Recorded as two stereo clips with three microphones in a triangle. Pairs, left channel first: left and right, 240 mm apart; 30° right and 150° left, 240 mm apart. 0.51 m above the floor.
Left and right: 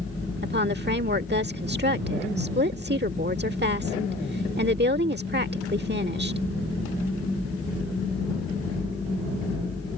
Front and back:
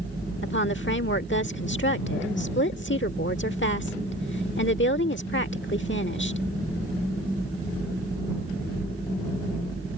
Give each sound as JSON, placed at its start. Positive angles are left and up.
{"t": 0.4, "sound": "a woman speaking", "azimuth_deg": -55}